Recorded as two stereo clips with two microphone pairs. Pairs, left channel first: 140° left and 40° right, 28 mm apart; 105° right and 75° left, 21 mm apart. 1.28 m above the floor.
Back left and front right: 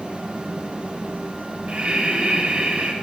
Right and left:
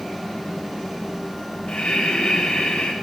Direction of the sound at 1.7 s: 90° right.